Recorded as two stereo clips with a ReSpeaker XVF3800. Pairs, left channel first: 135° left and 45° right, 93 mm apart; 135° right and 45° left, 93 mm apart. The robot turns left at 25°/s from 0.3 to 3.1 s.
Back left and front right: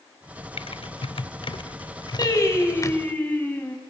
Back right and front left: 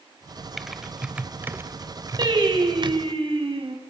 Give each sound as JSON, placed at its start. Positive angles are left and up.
{"t": 0.6, "sound": "typing on a keyboard", "azimuth_deg": 135, "distance_m": 0.7}
{"t": 2.2, "sound": "singing", "azimuth_deg": 85, "distance_m": 3.0}